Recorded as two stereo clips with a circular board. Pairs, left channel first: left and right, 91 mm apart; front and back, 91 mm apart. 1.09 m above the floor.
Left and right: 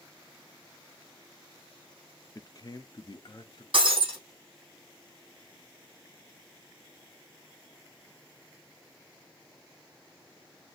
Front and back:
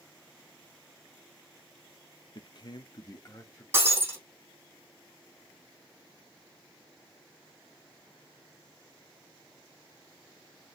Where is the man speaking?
35° left, 0.6 m; by 3.6 s 55° left, 1.3 m.